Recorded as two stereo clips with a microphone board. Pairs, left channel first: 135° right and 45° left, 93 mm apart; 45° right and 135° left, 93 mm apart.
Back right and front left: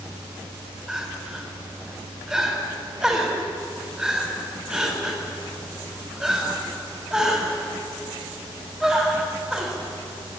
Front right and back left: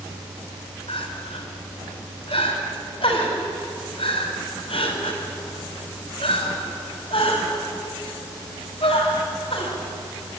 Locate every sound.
0.9 s crying: 40° right, 4.5 m